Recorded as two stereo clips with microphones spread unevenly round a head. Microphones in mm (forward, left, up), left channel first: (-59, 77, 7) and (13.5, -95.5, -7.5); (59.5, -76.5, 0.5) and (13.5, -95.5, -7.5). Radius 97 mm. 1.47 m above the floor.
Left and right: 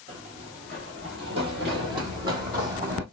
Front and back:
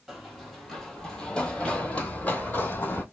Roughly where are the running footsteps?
Right.